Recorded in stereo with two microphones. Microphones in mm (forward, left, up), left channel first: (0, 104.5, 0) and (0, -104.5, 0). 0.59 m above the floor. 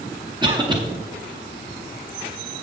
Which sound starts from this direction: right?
A cough, at 0.4 s.